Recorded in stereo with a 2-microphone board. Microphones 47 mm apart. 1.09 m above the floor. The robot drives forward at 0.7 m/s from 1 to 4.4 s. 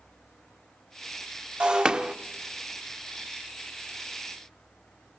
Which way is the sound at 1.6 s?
20° right (ahead or behind).